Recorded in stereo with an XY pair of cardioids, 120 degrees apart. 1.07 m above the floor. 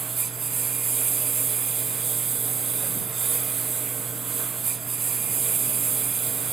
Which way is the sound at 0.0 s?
35° right.